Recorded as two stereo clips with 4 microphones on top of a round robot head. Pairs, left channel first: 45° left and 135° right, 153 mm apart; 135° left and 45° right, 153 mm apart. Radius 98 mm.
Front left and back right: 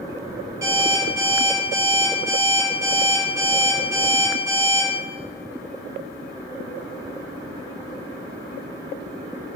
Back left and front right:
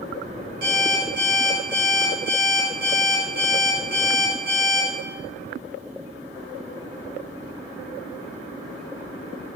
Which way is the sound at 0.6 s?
65° right.